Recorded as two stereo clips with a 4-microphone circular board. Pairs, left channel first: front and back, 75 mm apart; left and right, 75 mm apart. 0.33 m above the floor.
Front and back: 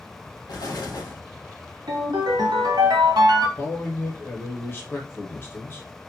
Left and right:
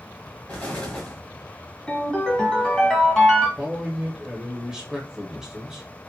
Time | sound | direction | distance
0.5 | an explosion | 20° left | 0.9 m
1.9 | a ringtone | 170° left | 1.1 m
3.6 | a man speaking | 15° right | 0.9 m